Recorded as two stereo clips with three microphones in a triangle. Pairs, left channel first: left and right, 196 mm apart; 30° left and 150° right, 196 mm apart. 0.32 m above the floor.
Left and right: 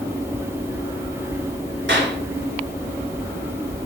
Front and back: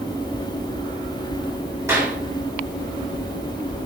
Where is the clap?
75° right, 4.5 m.